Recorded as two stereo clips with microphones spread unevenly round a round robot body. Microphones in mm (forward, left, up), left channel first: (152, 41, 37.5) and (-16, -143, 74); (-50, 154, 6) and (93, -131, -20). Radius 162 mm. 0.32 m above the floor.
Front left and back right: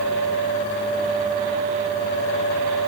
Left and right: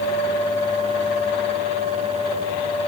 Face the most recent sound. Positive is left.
No sound to turn to.